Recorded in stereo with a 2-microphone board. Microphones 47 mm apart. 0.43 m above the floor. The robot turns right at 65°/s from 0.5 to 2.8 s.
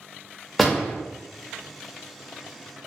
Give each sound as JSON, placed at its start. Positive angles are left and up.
{"t": 0.6, "sound": "a door slam", "side_deg": 0, "distance_m": 0.6}